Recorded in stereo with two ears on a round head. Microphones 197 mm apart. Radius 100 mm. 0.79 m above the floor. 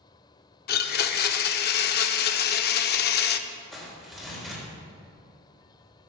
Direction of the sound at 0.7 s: 45° left (ahead or behind).